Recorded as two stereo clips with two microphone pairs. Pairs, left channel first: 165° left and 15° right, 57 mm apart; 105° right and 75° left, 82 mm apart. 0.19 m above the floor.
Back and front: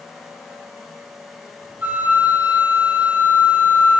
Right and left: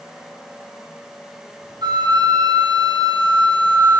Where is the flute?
45° left, 2 m.